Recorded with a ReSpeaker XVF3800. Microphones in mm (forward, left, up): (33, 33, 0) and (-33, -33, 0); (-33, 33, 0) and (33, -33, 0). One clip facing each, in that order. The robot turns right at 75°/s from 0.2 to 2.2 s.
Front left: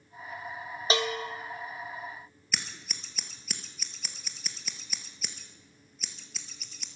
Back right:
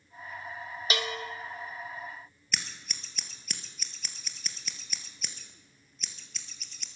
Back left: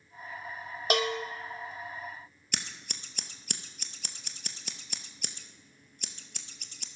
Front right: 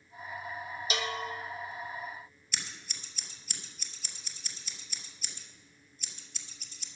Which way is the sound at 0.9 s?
105° left.